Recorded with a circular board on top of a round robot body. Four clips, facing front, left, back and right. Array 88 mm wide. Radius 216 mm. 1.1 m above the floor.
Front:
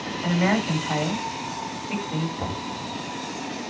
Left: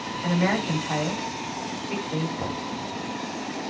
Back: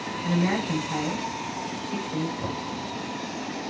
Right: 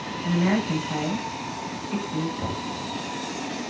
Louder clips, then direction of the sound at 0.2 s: Right 1 dB, front 3 dB; 35° left.